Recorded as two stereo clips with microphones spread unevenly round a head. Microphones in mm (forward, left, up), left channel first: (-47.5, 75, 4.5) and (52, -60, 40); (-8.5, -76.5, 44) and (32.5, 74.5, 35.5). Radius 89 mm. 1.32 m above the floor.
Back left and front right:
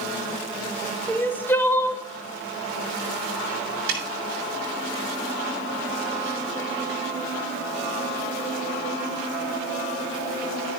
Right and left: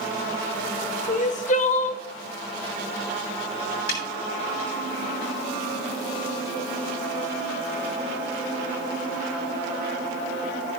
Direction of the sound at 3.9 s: 85° right.